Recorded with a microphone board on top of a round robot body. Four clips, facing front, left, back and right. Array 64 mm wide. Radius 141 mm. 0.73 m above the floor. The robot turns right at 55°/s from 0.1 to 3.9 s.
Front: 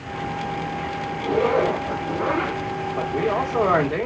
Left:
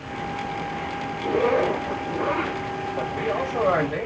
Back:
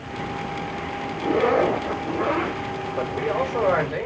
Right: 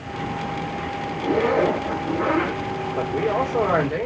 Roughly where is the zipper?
Behind.